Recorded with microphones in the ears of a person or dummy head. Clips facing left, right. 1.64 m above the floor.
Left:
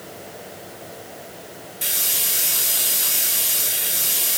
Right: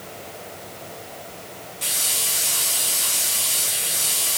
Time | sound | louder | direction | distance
1.8 | a hiss | even | 25° left (ahead or behind) | 0.7 m